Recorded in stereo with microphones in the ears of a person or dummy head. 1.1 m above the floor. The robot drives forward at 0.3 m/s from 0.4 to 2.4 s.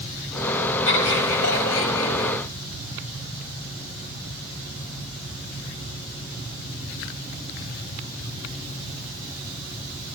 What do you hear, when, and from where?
0.9 s laughter: 85° left, 6 m; by 2.3 s 90° left, 6 m